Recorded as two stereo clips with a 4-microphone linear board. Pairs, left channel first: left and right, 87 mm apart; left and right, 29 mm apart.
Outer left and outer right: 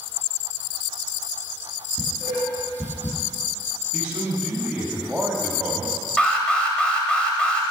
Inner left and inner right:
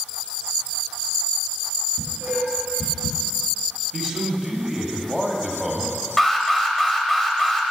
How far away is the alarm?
About 0.9 m.